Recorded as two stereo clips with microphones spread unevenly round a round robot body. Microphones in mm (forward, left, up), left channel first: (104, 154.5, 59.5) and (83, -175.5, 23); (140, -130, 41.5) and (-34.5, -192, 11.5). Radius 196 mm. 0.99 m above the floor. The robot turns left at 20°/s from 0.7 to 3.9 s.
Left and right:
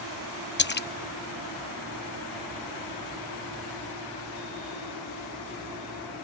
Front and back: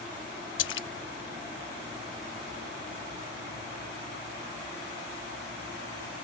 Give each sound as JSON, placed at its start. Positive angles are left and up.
{"t": 0.6, "sound": "a splash", "azimuth_deg": 25}